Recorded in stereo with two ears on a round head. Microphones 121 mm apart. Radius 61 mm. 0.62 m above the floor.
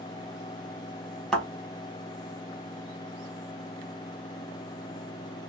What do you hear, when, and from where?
1.3 s a thud: 5° left (ahead or behind), 1.6 m